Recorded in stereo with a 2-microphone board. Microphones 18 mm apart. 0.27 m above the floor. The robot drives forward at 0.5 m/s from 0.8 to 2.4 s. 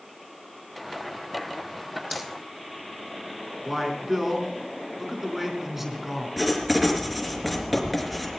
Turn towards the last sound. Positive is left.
turn(degrees=0)  # may be behind; listen again after turning